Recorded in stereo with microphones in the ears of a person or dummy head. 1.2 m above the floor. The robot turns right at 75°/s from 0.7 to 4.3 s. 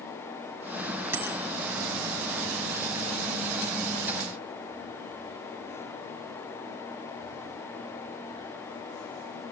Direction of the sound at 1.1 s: 20° right (ahead or behind).